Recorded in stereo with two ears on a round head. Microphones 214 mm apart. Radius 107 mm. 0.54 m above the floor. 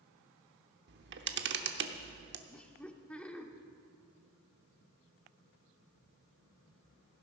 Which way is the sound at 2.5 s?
5° left (ahead or behind).